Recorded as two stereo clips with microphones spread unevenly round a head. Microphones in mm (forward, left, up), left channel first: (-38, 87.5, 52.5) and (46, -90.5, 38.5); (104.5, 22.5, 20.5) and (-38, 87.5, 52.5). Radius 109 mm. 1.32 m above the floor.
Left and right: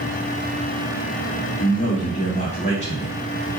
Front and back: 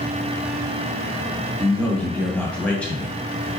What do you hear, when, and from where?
1.6 s a man speaking: 55° left, 2.5 m